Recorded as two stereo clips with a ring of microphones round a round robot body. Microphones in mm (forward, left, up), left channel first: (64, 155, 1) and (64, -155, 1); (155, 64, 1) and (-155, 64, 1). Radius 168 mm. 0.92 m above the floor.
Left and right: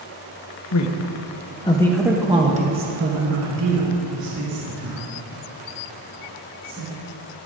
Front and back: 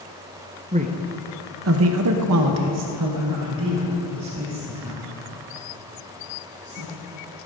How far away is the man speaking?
About 0.8 m.